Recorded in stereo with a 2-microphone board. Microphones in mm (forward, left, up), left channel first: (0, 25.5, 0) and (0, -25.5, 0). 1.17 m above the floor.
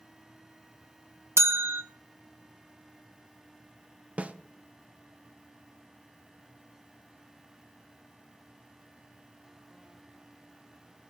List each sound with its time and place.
1.4 s a bell: 55° right (ahead or behind), 0.7 m
4.2 s a snare drum: 25° right (ahead or behind), 0.5 m